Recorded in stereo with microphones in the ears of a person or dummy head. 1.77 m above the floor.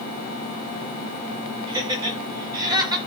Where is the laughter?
20° right (ahead or behind), 10 m.